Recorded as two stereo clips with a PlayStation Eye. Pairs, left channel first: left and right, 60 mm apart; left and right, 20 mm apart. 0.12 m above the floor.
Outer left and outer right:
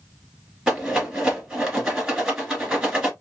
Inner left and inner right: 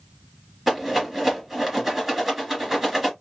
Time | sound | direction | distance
0.7 | a rattle | 5° right (ahead or behind) | 1.8 m